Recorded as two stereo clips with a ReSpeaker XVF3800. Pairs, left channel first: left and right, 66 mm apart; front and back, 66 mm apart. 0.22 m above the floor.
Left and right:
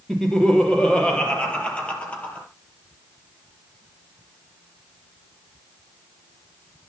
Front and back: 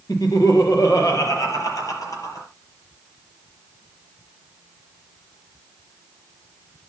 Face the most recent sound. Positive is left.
turn(degrees=25)